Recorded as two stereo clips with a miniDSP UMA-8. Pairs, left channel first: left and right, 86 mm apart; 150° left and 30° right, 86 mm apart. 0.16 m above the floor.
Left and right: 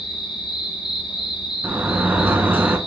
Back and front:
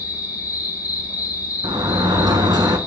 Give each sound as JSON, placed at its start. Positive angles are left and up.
{"t": 0.0, "sound": "an insect", "azimuth_deg": 100, "distance_m": 1.7}
{"t": 1.6, "sound": "a sliding door", "azimuth_deg": -25, "distance_m": 0.5}